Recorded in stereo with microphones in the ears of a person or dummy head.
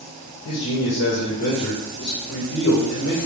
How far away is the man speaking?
About 1.5 m.